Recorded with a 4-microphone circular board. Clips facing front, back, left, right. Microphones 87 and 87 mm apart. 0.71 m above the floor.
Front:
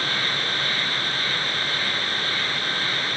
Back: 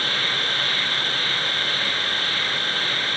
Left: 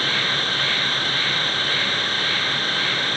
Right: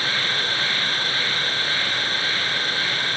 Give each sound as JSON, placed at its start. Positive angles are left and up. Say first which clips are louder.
{"t": 0.0, "sound": "an insect", "louder": "even, left 1 dB", "azimuth_deg": -165, "distance_m": 8.0}